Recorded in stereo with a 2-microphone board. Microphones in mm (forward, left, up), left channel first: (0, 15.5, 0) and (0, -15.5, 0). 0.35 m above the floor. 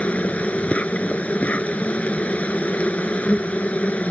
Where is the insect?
55° left (ahead or behind).